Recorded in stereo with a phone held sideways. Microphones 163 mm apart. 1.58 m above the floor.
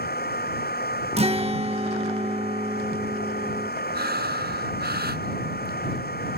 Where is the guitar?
40° right (ahead or behind).